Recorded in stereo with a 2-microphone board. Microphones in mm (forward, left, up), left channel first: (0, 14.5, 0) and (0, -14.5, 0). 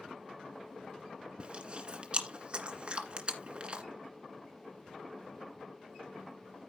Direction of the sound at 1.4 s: 35° right (ahead or behind).